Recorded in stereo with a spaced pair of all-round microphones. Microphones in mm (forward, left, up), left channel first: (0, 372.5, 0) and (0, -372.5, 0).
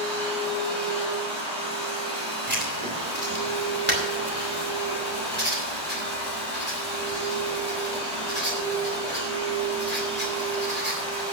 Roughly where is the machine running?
Right.